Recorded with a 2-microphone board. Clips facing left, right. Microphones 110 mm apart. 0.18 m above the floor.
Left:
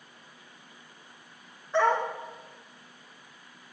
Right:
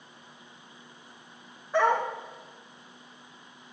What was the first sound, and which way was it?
A dog barking, 10° right (ahead or behind).